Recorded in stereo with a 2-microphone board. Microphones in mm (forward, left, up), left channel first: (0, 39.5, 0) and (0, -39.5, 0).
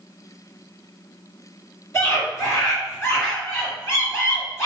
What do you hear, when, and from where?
1.9 s a scream: 30° left (ahead or behind), 1.9 m